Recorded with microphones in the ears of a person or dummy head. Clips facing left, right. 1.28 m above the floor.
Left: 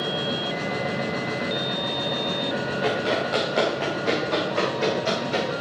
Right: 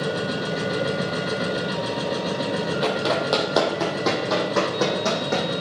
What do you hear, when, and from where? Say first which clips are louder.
0.0 s a machine running: right 2 dB; 50° right (ahead or behind), 1.6 m
2.8 s running footsteps: even; 60° right (ahead or behind), 3 m; by 5.5 s 75° right (ahead or behind), 4.5 m